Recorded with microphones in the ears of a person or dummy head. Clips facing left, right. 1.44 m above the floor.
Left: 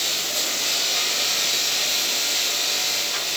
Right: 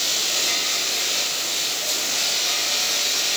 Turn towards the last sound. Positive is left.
No sound to turn to.